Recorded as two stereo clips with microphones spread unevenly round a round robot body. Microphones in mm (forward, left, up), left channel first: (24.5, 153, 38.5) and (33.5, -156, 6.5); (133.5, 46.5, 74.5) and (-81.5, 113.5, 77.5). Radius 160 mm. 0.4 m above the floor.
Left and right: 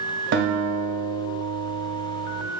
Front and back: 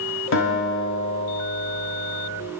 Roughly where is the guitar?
Ahead right.